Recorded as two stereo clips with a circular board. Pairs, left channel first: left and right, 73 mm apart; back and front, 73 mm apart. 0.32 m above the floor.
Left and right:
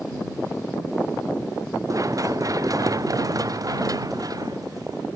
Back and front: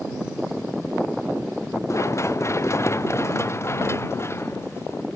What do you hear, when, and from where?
1.9 s running footsteps: 130° right; by 5.0 s 125° right